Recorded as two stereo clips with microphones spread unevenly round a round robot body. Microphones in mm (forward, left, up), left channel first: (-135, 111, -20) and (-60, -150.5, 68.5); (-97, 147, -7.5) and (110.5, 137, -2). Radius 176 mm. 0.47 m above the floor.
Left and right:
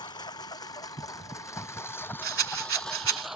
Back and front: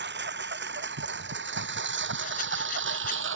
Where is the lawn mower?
25° left; by 3.4 s 10° left.